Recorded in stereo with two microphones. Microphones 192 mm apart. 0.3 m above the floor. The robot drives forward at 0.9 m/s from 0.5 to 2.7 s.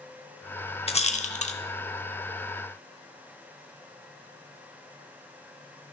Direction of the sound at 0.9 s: 35° left (ahead or behind).